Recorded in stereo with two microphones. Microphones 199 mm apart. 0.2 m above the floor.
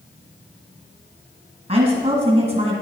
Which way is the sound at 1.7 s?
30° right (ahead or behind).